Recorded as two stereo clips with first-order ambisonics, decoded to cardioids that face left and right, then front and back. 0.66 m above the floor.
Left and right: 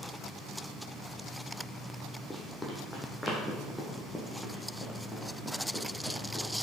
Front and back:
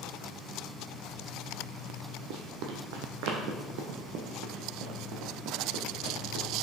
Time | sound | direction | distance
2.3 | running footsteps | 175° left | 1.4 m